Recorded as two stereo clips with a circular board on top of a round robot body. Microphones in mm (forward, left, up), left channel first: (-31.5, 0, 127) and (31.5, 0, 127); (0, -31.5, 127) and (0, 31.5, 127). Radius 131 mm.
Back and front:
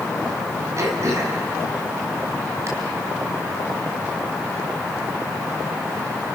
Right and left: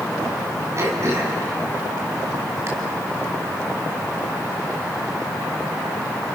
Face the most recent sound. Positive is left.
turn(degrees=45)